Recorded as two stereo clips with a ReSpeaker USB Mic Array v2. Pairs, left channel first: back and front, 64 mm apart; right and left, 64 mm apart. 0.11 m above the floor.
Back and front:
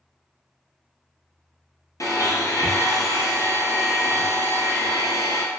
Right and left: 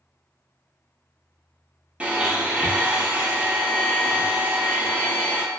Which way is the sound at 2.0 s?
160° left.